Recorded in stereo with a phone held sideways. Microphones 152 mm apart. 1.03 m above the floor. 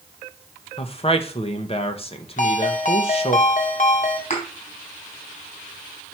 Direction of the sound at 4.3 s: 55° left (ahead or behind).